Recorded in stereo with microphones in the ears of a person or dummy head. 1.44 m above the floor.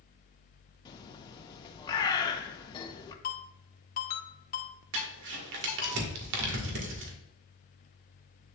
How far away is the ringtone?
About 1.8 m.